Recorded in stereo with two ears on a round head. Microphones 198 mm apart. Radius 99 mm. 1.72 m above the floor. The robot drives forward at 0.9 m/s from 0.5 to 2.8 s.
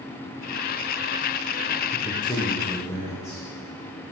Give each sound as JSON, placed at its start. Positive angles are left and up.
{"t": 1.9, "sound": "a man speaking", "side_deg": 25, "distance_m": 0.8}